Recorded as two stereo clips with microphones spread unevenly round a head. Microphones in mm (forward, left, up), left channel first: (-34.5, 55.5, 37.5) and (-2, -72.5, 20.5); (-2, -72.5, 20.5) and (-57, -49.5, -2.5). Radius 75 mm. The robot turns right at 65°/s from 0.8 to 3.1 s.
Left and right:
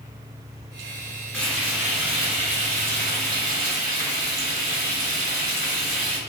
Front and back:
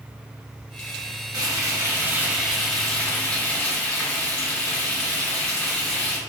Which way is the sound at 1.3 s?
175° left.